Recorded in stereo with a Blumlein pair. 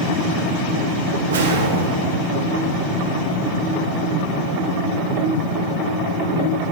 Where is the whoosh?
60° right, 1.1 m.